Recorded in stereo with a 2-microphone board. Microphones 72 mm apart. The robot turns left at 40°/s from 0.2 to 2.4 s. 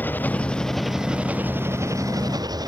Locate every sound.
0.0 s an engine running: 25° left; by 2.7 s 65° right